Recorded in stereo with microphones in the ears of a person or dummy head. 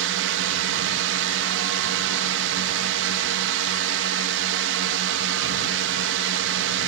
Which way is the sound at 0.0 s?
60° right (ahead or behind).